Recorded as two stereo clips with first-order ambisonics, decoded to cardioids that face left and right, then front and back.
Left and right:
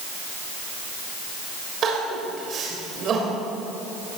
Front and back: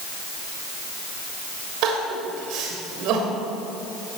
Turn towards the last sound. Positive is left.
turn(degrees=-150)